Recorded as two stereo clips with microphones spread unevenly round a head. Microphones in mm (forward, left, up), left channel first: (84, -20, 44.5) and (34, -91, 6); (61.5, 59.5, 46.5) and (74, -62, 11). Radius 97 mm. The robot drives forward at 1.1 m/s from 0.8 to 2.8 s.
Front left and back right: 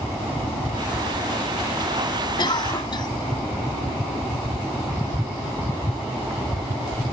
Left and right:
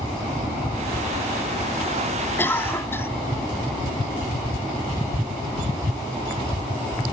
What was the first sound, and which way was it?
A cough, 25° left.